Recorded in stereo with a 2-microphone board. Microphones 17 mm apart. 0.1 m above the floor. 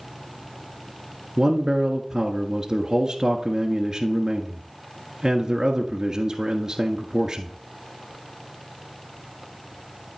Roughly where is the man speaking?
Right.